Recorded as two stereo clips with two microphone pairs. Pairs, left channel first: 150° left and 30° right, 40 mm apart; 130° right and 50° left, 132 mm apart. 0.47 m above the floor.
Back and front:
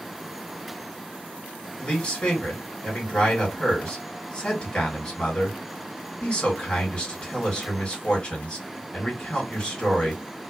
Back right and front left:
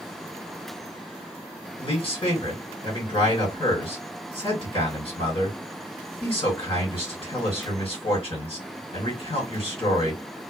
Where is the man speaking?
155° right, 2 m.